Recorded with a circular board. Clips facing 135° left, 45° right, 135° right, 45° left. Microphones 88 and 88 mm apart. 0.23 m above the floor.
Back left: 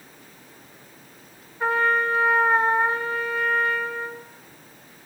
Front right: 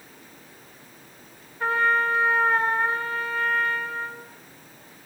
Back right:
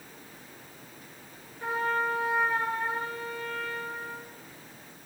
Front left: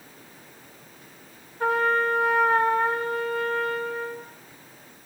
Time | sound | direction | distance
1.6 | a trumpet | 60° left | 1.9 m